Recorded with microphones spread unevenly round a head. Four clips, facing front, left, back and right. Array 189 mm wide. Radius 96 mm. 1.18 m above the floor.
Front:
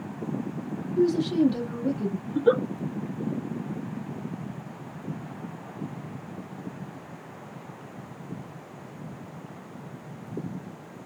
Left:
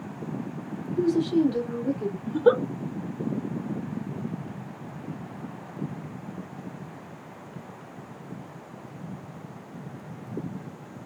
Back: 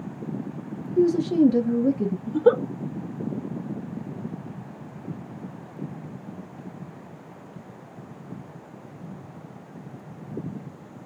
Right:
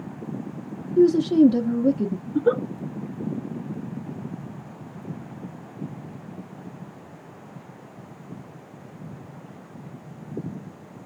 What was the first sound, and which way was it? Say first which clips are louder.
A woman speaking: right 7 dB, back 3 dB; 125° right.